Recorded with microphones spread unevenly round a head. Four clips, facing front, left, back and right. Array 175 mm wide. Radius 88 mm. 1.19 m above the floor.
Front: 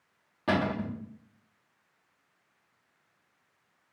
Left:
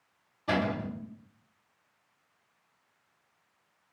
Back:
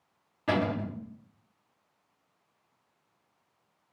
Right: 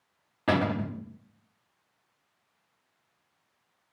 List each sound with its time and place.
0.5 s a cupboard door: 65° right, 1.1 m